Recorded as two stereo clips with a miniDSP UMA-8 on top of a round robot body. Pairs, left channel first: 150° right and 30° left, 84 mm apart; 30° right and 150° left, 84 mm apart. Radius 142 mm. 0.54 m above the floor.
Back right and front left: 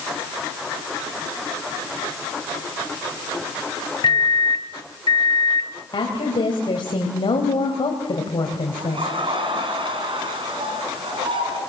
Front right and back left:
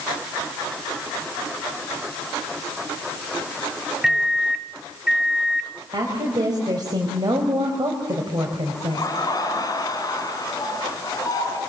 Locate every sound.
4.0 s a microwave: 130° right, 1.4 m
5.9 s a woman speaking: 170° right, 3.5 m
8.8 s laughter: 15° left, 8 m